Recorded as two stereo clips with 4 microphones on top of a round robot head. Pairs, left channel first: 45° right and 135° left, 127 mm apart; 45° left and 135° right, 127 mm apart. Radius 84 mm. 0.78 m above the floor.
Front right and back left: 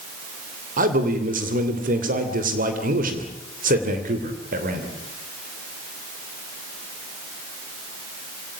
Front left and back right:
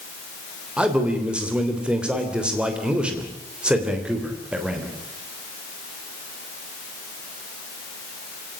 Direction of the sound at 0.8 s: 140° left.